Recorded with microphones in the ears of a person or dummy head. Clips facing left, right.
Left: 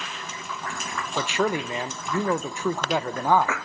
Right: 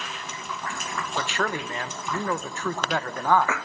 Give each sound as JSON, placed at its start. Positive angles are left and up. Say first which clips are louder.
{"t": 1.2, "sound": "a man speaking", "louder": "left 5 dB", "side_deg": 10, "distance_m": 0.6}